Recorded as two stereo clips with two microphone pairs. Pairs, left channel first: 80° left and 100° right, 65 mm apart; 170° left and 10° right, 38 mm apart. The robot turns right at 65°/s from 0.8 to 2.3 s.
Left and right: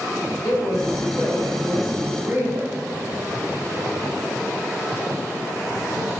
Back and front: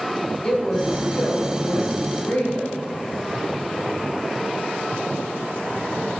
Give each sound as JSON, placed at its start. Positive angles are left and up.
{"t": 0.4, "sound": "a woman speaking", "azimuth_deg": 110, "distance_m": 2.5}